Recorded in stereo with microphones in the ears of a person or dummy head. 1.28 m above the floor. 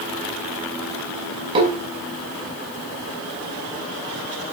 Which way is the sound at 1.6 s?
35° right (ahead or behind).